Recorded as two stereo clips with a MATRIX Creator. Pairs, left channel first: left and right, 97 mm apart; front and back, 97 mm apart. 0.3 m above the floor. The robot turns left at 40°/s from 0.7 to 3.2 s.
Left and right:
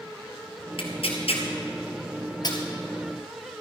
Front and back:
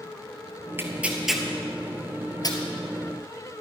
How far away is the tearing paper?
About 1.7 m.